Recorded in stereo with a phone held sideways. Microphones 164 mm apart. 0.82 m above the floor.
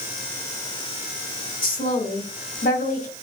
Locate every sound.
1.6 s a woman speaking: 55° left (ahead or behind), 2.5 m